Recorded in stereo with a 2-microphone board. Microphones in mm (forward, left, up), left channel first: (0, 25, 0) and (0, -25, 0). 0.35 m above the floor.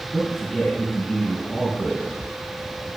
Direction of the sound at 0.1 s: 5° left (ahead or behind).